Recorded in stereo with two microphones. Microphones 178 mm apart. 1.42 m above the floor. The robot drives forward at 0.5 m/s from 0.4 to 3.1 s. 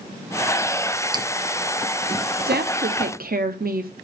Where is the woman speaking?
65° right (ahead or behind), 0.8 m; by 3.9 s 60° right (ahead or behind), 0.8 m.